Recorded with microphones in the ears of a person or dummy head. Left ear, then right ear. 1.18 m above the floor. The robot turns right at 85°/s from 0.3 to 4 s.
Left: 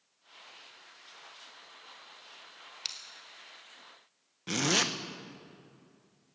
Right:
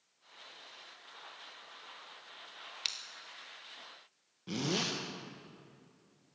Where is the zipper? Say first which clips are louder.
Left 7 dB; 50° left (ahead or behind), 0.9 m.